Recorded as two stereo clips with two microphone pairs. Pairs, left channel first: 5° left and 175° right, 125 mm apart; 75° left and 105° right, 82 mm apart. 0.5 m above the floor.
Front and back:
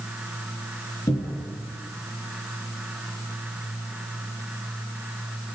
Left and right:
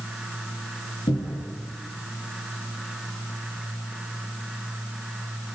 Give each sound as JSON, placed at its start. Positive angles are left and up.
{"t": 1.1, "sound": "a cupboard door", "azimuth_deg": 65, "distance_m": 4.0}